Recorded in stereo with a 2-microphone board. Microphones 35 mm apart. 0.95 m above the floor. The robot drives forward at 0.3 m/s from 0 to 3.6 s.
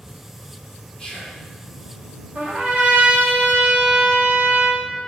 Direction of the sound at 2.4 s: 45° right (ahead or behind).